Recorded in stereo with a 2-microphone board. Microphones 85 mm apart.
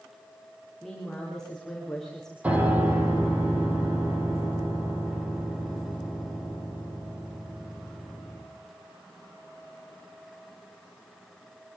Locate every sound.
0.8 s a woman speaking: 5° left (ahead or behind), 7.5 m
2.4 s a piano: 15° right (ahead or behind), 5.5 m